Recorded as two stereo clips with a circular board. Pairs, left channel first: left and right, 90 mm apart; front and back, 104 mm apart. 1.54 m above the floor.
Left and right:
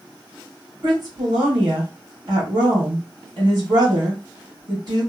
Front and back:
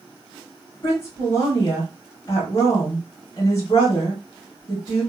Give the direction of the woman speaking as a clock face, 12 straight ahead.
2 o'clock.